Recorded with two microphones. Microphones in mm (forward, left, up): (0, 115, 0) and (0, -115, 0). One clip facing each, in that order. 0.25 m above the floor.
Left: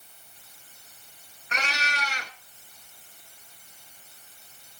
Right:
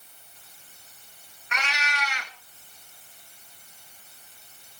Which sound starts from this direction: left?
A cat meowing, at 1.5 s.